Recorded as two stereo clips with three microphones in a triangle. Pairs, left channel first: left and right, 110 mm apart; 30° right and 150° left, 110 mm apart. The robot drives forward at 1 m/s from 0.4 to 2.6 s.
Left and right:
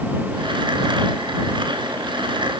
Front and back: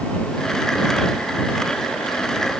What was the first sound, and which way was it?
Only background noise.